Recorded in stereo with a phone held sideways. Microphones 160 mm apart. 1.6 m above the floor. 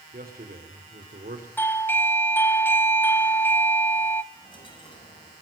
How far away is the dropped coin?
About 7 m.